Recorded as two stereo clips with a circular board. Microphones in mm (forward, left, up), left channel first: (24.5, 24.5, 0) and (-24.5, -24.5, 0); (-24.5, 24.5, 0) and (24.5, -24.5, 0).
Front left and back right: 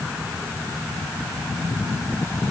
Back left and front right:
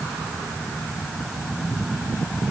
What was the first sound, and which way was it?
Only background noise.